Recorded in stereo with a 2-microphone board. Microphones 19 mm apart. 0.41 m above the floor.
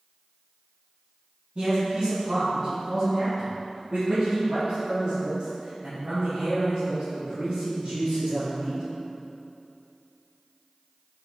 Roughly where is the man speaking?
Right.